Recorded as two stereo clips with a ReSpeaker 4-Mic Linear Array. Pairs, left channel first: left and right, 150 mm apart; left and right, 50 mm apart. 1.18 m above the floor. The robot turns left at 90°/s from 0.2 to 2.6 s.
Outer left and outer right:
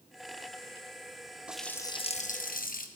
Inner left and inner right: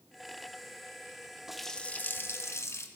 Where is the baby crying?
I don't hear a baby crying.